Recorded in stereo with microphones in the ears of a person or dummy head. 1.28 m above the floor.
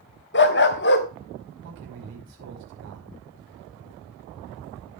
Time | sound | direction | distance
0.3 | a dog barking | 55° left (ahead or behind) | 1.2 m
1.6 | a man speaking | 65° right (ahead or behind) | 5.5 m